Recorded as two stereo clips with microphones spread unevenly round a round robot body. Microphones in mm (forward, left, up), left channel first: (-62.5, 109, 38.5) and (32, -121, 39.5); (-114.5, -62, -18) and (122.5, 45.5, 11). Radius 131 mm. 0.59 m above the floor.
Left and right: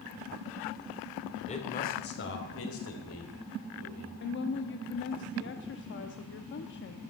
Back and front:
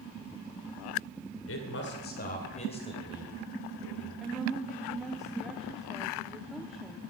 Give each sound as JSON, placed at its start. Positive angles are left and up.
{"t": 1.5, "sound": "a man speaking", "azimuth_deg": 175, "distance_m": 2.5}
{"t": 4.2, "sound": "a woman speaking", "azimuth_deg": 120, "distance_m": 0.7}